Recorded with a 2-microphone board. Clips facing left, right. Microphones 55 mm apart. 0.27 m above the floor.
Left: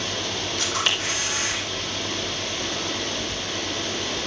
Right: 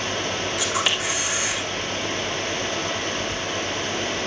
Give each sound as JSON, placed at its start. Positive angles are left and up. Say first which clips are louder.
{"t": 0.6, "sound": "a camera shutter", "louder": "even", "side_deg": -15, "distance_m": 3.5}